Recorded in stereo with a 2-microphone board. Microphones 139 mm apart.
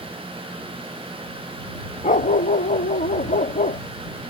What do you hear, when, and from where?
2.0 s a dog barking: 70° left (ahead or behind)